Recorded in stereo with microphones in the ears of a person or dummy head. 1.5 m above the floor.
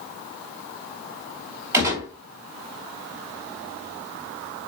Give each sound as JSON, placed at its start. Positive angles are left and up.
{"t": 1.7, "sound": "a gunshot", "side_deg": -15, "distance_m": 3.0}